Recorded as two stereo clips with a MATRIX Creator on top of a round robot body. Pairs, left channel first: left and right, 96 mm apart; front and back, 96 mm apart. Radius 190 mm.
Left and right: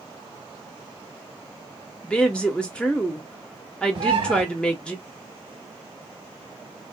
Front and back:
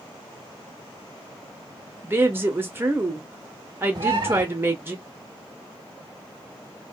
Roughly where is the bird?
Behind right.